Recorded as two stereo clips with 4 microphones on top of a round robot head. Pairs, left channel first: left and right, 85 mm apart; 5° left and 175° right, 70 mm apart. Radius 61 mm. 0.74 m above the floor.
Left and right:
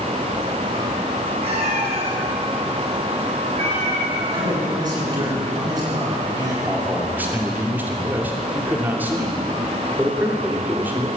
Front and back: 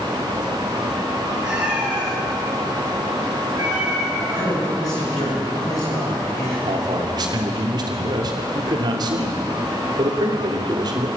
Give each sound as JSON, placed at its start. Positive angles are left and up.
{"t": 1.4, "sound": "a cat meowing", "azimuth_deg": -95, "distance_m": 9.0}
{"t": 4.3, "sound": "a man speaking", "azimuth_deg": -50, "distance_m": 9.5}
{"t": 6.7, "sound": "a man speaking", "azimuth_deg": -160, "distance_m": 2.5}